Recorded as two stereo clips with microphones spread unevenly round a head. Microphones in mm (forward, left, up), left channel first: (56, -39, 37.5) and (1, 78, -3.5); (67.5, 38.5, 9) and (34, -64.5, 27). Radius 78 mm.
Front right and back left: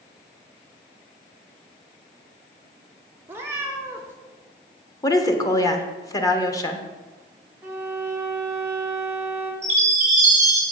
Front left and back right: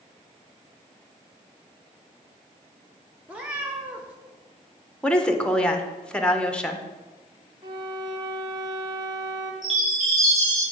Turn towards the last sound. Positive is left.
turn(degrees=165)